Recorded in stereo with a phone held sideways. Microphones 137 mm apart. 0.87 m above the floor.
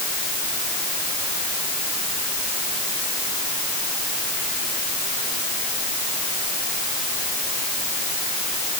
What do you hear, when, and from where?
Only background noise.